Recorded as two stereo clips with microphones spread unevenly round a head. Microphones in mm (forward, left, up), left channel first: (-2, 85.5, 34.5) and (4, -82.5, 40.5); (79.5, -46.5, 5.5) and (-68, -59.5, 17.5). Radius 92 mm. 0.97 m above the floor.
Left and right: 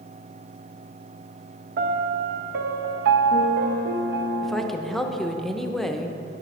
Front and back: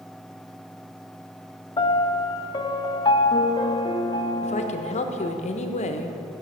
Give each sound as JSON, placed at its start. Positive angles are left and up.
{"t": 1.8, "sound": "a piano", "azimuth_deg": -55, "distance_m": 0.7}
{"t": 4.4, "sound": "a woman speaking", "azimuth_deg": 5, "distance_m": 0.8}